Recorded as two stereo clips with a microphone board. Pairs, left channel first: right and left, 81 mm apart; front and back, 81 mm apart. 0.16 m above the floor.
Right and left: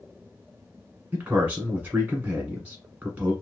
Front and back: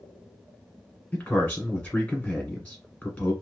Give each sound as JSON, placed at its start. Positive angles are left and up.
{"t": 1.1, "sound": "a man speaking", "azimuth_deg": 45, "distance_m": 1.5}